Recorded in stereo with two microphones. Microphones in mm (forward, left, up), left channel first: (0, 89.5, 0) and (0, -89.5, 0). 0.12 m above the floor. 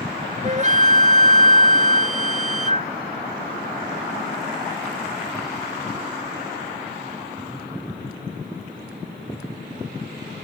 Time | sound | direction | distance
0.4 | a flute | 40° right (ahead or behind) | ?